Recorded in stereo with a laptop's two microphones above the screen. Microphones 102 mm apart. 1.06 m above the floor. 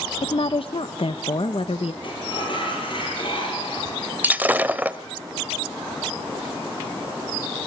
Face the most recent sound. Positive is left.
turn(degrees=-15)  # may be behind; listen again after turning